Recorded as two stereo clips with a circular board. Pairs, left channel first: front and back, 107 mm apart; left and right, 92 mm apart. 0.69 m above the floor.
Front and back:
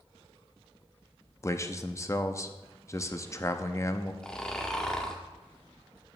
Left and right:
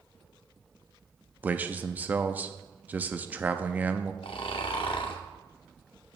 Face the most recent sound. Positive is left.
turn(degrees=80)